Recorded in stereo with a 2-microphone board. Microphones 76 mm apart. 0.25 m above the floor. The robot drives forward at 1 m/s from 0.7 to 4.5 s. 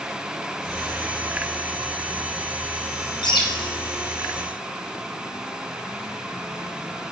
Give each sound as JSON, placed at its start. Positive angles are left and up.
{"t": 3.2, "sound": "a bird", "side_deg": 80, "distance_m": 7.0}